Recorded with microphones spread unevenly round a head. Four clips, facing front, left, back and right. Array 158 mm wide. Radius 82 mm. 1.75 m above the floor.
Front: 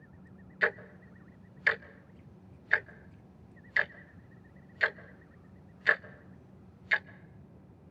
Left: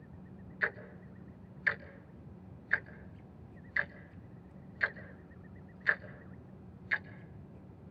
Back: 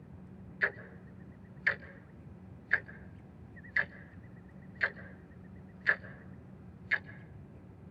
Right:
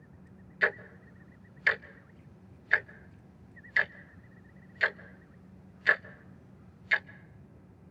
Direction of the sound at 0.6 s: 35° right.